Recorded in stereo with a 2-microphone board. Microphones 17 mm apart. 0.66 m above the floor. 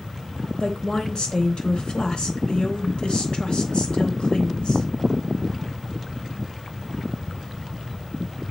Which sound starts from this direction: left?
A woman speaking, at 0.6 s.